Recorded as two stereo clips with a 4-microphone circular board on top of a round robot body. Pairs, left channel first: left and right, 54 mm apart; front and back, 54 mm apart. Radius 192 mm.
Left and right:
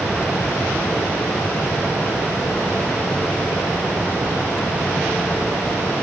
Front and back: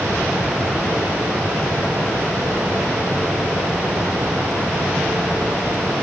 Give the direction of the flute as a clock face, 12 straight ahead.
No flute in this recording.